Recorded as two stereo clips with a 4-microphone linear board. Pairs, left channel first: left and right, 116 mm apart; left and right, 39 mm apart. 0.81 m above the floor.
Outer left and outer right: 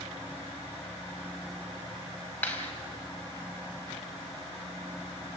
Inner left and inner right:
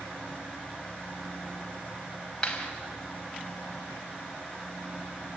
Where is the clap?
15° left (ahead or behind), 4.5 m.